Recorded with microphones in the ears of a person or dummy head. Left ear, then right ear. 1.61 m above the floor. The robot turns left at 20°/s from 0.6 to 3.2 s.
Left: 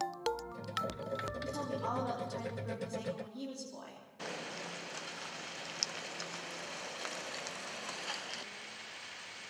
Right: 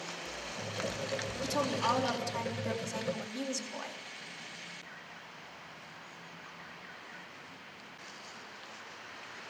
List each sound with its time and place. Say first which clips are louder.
1.4 s a woman speaking: right 11 dB; 80° right, 3.5 m; by 4.0 s 115° right, 3.5 m